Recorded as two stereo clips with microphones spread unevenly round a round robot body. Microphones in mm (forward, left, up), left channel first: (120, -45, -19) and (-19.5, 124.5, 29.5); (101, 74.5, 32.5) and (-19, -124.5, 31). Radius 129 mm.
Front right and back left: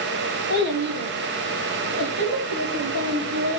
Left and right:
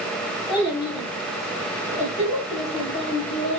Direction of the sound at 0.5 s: 135° left.